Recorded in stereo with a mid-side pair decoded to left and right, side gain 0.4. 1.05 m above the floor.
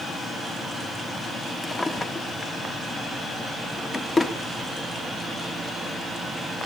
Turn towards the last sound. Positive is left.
turn(degrees=30)